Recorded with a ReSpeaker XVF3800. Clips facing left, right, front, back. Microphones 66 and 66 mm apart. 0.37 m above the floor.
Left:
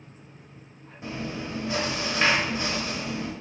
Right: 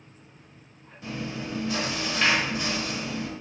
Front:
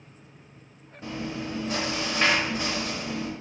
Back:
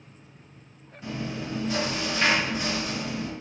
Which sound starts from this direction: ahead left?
Chewing, at 1.0 s.